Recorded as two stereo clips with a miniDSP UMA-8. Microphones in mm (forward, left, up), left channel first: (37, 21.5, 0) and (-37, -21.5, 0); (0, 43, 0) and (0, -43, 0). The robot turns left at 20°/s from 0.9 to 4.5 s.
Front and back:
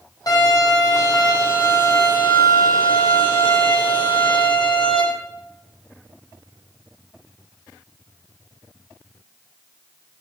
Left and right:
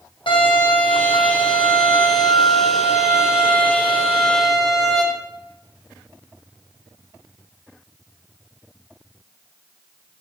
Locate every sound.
0.3 s a violin: 75° left, 6 m; by 5.0 s straight ahead, 6 m